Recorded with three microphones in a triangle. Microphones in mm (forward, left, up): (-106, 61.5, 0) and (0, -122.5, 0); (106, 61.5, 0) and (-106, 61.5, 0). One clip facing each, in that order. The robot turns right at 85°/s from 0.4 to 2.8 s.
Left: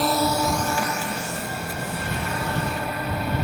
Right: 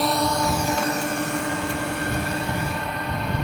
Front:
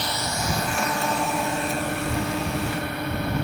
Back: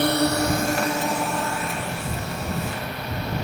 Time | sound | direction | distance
0.0 | a drone | 150° right | ?